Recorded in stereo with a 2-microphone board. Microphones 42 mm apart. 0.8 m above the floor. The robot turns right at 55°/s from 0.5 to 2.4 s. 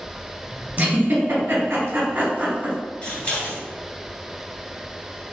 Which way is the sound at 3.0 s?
35° left (ahead or behind).